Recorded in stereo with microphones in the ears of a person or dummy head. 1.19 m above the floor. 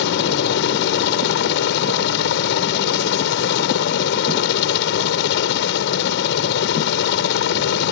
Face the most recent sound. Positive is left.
turn(degrees=60)  # may be behind; listen again after turning